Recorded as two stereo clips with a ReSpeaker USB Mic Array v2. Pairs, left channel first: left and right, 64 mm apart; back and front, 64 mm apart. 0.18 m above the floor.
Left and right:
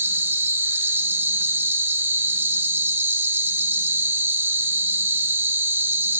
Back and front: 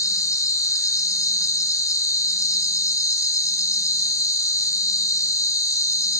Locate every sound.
0.0 s an insect: 145° right, 1.0 m